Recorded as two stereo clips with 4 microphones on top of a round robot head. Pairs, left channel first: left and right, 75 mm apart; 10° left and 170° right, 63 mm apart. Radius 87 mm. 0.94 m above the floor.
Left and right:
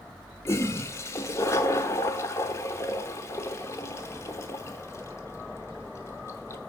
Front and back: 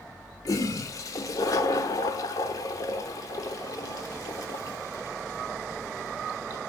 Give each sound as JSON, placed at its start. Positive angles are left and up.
{"t": 0.5, "sound": "a toilet flushing", "azimuth_deg": 40, "distance_m": 0.8}